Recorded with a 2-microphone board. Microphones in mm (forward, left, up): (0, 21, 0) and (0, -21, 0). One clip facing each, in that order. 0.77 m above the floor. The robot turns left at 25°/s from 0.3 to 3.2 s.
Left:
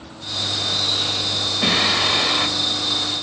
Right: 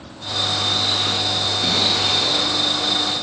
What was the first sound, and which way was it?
Singing, 80° left.